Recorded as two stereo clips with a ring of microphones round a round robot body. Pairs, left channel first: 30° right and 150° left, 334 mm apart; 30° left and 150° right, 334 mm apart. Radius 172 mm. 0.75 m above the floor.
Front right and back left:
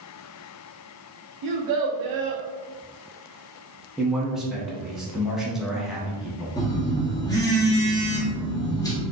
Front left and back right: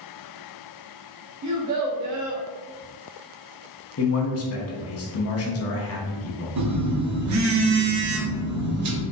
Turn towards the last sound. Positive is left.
turn(degrees=-110)